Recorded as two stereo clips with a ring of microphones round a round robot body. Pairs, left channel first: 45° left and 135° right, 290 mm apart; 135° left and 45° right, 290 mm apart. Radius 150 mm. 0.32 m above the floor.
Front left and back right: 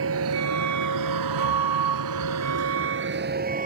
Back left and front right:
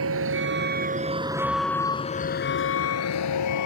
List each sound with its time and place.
0.0 s a vehicle: 90° right; by 3.7 s 160° left